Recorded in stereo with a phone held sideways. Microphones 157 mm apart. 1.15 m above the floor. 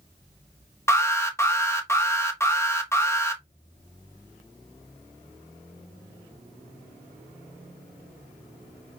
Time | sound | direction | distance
0.9 | an alarm | 15° left (ahead or behind) | 1.2 m